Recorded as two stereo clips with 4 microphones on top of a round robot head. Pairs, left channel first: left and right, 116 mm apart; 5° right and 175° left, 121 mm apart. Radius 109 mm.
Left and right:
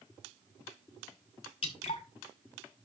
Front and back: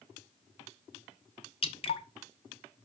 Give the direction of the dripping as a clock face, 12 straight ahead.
11 o'clock.